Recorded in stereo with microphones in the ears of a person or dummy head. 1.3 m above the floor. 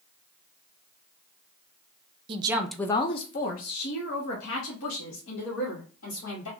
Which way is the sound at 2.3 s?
30° right (ahead or behind).